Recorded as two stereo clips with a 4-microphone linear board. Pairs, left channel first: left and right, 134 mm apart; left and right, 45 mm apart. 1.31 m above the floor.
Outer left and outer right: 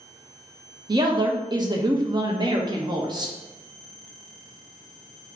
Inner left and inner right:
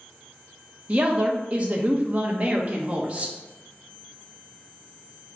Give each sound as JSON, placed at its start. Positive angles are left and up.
{"t": 0.9, "sound": "a woman speaking", "side_deg": -35, "distance_m": 0.5}